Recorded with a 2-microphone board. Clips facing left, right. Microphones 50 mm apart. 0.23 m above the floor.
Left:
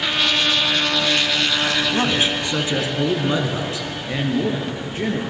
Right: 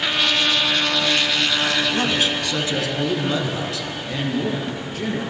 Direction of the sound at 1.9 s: 25° left (ahead or behind).